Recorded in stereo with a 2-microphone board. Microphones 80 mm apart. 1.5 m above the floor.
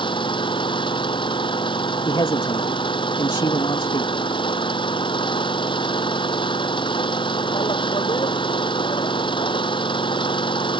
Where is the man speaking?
90° left.